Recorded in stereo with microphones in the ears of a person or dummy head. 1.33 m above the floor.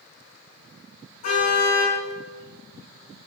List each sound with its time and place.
1.2 s a car horn: 50° left (ahead or behind), 5.5 m